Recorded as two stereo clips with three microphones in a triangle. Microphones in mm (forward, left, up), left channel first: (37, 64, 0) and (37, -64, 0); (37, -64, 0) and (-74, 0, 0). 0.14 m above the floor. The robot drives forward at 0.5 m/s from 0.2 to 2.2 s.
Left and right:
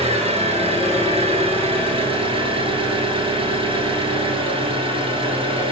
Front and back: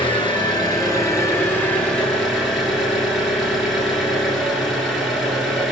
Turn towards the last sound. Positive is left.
turn(degrees=-115)